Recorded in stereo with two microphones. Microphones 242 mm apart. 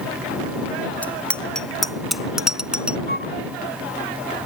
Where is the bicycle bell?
5° left (ahead or behind); by 3.0 s 5° right (ahead or behind).